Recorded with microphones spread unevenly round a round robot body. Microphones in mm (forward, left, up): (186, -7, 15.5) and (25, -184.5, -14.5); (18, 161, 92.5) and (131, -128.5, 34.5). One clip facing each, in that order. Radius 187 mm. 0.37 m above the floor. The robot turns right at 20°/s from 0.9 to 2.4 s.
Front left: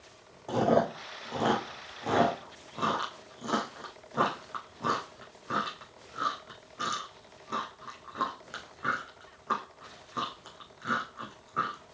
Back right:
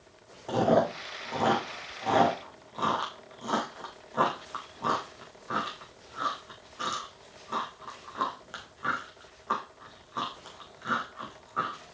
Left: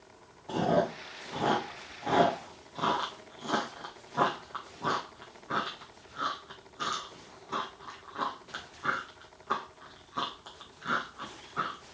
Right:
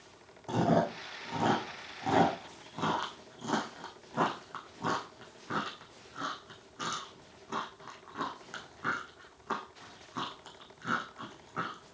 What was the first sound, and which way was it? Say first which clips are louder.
Chewing: back right 1 dB, even; 45° right.